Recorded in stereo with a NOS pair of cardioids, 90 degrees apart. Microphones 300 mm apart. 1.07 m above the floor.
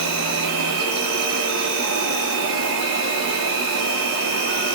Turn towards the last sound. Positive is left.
turn(degrees=-65)